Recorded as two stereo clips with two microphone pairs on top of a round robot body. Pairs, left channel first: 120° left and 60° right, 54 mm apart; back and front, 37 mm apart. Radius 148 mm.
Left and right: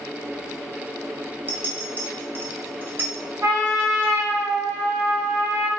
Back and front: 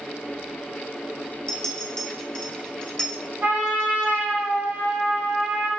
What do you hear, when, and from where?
1.5 s a clink: 110° right, 0.9 m
3.4 s a trumpet: 30° right, 1.5 m